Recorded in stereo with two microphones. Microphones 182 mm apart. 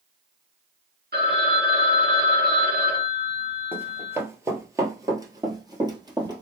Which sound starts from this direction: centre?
Running footsteps, at 3.7 s.